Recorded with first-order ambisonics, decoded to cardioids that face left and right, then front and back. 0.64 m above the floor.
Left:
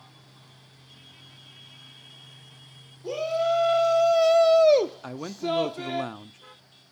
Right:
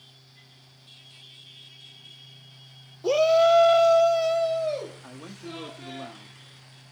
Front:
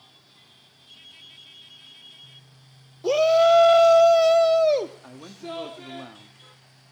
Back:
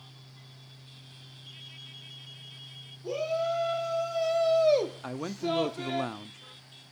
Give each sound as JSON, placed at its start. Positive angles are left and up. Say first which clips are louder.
{"t": 3.0, "sound": "a shout", "louder": "right 7 dB, front 13 dB", "azimuth_deg": -35, "distance_m": 1.7}
{"t": 5.0, "sound": "a man speaking", "louder": "left 11 dB, back 6 dB", "azimuth_deg": 135, "distance_m": 0.7}